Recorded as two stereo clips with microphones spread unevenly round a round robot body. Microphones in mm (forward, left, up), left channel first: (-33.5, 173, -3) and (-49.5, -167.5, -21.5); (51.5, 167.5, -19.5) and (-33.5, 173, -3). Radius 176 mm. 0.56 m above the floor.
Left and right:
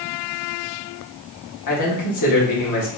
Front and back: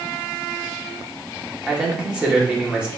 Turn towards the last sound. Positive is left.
turn(degrees=90)